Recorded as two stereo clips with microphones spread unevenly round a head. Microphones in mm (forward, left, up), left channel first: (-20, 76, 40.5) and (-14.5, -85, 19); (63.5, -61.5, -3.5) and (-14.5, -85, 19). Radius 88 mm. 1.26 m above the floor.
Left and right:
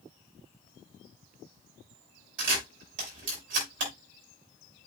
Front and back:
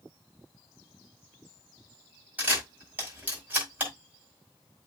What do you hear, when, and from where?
2.4 s a camera shutter: 95° right, 5 m